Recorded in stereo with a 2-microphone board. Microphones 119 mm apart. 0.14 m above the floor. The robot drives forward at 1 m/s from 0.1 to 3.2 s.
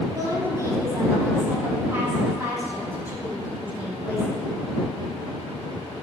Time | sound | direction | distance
0.1 | a woman speaking | 30° right (ahead or behind) | 2.5 m